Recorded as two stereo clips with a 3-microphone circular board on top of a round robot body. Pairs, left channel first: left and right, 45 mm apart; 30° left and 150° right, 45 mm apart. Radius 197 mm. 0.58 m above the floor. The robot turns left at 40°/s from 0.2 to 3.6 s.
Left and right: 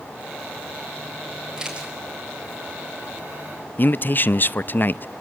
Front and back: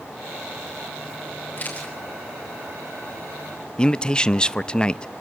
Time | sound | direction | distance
1.6 | a camera shutter | 15° right | 5 m
3.8 | a man speaking | 95° left | 0.7 m